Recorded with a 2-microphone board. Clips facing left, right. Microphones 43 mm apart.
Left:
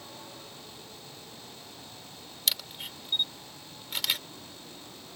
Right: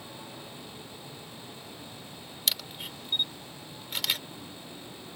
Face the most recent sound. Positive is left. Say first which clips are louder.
# even
turn(degrees=0)  # may be behind; listen again after turning